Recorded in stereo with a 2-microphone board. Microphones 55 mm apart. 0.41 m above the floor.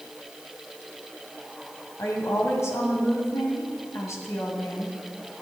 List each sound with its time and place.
2.0 s a woman speaking: 55° left (ahead or behind), 2.5 m